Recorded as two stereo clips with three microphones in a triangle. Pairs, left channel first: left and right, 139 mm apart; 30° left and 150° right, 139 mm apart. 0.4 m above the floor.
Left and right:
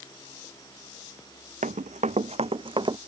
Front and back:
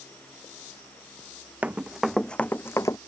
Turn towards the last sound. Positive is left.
turn(degrees=-35)